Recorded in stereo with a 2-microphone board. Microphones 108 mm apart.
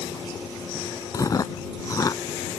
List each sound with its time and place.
1.1 s chewing: 35° left (ahead or behind)